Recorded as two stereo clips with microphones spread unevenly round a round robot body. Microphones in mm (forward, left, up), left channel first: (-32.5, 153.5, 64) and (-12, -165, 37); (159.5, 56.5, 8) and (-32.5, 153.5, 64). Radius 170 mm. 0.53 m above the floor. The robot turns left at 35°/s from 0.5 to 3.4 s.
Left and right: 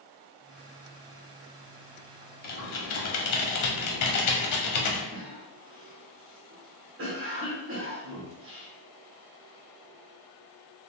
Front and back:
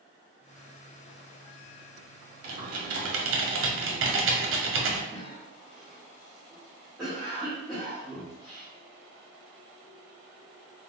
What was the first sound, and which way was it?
Typing on a keyboard, 155° left.